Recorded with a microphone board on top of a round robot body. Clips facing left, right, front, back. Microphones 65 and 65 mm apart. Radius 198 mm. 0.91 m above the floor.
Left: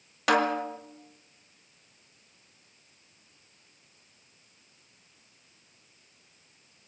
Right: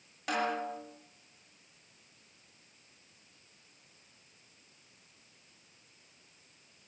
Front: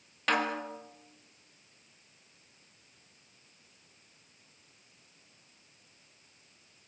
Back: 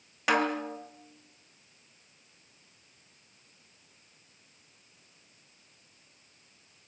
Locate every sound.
0.3 s a snare drum: 100° left, 1.1 m